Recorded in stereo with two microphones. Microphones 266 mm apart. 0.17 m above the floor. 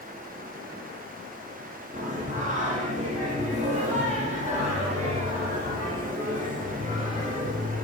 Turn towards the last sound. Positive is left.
turn(degrees=-25)  # may be behind; listen again after turning